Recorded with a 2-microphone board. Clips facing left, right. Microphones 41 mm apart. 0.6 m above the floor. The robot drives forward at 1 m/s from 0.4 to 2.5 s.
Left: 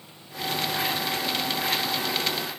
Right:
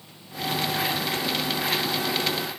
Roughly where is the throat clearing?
I don't hear throat clearing.